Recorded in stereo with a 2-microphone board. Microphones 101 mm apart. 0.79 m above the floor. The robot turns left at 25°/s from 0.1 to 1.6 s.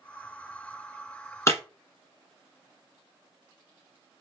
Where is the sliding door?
No sliding door in this recording.